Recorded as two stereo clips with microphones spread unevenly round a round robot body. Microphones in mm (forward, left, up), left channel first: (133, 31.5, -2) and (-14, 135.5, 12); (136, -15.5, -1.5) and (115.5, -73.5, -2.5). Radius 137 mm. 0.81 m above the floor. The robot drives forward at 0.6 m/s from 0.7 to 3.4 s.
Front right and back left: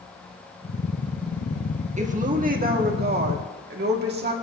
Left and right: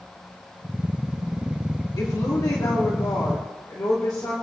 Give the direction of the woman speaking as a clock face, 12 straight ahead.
9 o'clock.